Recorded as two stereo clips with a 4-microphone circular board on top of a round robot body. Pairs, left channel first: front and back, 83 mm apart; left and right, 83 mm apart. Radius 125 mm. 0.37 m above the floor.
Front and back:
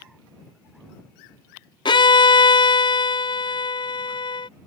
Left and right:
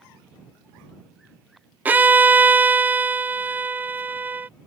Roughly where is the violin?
Ahead.